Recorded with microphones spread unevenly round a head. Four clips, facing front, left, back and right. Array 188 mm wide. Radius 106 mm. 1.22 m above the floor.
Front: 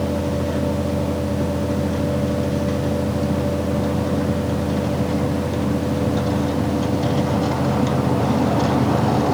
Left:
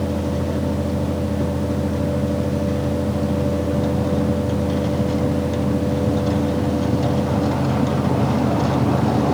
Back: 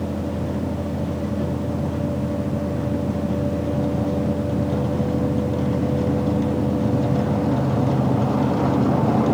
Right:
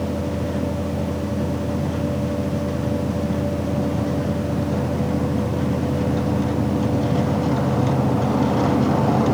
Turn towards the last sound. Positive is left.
No sound to turn to.